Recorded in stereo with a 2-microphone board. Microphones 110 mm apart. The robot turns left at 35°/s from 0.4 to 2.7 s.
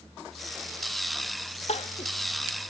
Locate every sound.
1.7 s crying: 75° left (ahead or behind), 1.0 m; by 2.1 s 60° left (ahead or behind), 1.0 m